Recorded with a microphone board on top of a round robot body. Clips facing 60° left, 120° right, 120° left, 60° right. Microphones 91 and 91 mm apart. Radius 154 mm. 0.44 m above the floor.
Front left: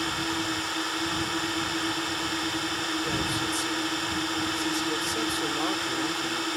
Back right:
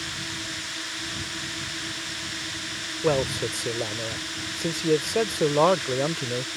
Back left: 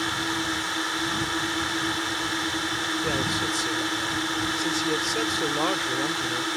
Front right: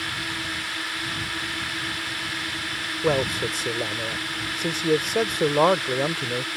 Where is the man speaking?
100° right.